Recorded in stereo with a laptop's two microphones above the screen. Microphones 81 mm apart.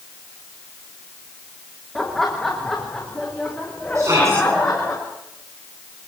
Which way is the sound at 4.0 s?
40° right (ahead or behind).